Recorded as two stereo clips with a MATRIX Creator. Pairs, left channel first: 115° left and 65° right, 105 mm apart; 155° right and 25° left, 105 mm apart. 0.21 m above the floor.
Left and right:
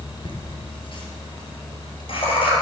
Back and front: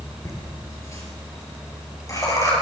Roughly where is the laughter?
Behind left.